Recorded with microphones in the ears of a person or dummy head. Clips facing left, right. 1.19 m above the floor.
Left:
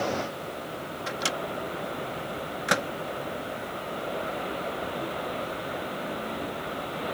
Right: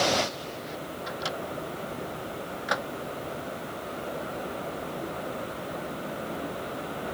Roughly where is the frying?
I don't hear frying.